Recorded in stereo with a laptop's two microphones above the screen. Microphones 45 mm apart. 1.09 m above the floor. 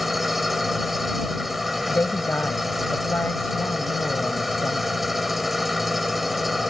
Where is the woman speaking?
50° left (ahead or behind).